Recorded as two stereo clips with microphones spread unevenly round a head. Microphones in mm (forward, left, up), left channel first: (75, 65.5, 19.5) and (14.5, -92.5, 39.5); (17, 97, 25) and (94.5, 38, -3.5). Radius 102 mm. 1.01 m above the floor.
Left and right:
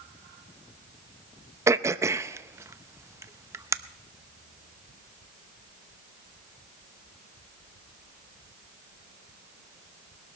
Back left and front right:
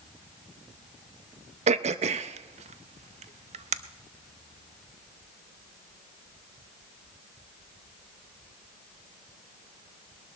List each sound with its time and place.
1.7 s throat clearing: 35° right, 0.5 m